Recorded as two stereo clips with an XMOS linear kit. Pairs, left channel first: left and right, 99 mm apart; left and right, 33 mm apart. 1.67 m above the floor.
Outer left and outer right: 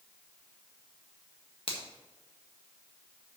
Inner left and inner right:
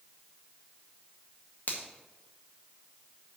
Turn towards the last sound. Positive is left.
turn(degrees=65)  # may be behind; listen again after turning